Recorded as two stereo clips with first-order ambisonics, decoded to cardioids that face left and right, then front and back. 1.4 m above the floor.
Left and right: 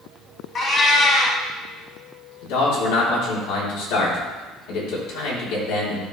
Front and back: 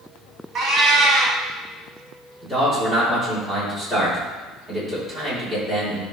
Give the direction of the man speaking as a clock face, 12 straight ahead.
9 o'clock.